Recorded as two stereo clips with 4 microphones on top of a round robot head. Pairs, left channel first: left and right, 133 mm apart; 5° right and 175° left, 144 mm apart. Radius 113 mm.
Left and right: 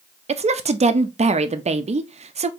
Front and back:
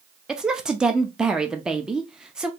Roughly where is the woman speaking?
Right.